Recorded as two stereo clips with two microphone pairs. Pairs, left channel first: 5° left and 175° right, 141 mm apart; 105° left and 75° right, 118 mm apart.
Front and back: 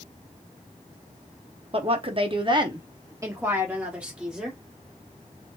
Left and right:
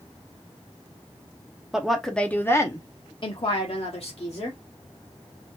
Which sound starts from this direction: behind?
A woman speaking, at 1.7 s.